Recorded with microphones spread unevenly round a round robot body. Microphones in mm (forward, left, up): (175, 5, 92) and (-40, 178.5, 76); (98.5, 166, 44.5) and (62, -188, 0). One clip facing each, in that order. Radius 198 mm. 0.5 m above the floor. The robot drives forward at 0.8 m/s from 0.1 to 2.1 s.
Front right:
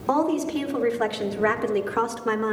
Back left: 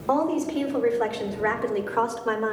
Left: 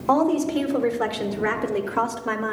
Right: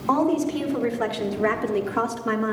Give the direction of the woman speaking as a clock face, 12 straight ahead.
12 o'clock.